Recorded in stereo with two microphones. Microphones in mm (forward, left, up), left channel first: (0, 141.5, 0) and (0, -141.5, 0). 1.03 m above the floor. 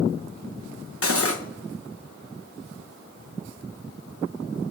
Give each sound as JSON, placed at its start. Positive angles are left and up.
{"t": 1.0, "sound": "cutlery clinking", "side_deg": 50, "distance_m": 0.9}